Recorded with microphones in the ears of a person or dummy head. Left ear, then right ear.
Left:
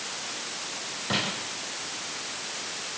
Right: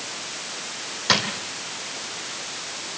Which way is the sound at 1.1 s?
75° right (ahead or behind).